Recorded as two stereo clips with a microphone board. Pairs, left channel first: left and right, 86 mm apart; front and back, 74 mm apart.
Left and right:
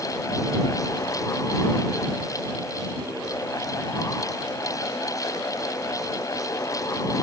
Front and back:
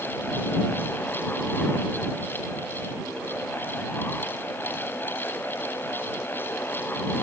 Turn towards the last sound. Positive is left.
No sound to turn to.